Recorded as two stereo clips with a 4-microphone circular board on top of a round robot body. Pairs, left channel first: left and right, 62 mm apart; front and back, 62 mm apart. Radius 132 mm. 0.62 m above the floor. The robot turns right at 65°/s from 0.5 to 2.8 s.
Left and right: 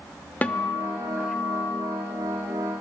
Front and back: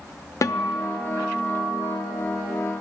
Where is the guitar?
25° left, 0.6 m; by 1.9 s 120° left, 0.6 m.